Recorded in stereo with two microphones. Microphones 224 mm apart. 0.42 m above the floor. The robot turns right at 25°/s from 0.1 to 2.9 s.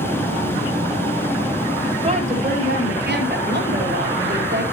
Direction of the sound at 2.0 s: 25° right (ahead or behind).